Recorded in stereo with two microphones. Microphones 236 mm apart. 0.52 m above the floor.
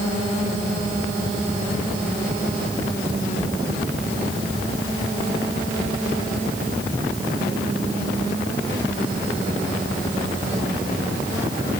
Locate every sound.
Only background noise.